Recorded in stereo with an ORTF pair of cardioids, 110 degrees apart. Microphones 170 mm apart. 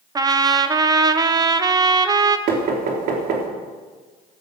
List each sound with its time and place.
0.1 s a trumpet: 20° right, 1.1 m
2.5 s knocking: 65° right, 3.5 m